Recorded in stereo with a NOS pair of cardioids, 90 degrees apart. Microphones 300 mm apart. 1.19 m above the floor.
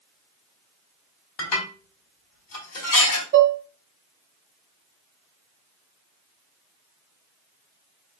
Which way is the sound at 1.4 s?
60° left.